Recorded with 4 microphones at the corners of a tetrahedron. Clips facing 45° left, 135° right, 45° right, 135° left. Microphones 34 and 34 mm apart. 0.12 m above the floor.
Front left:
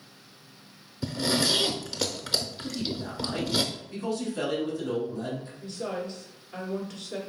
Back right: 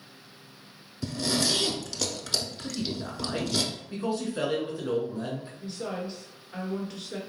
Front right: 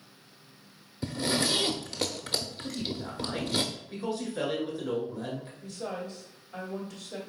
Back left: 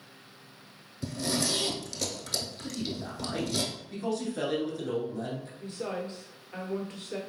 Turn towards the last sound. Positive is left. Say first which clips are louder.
# front left 1 dB, back left 3 dB
turn(degrees=145)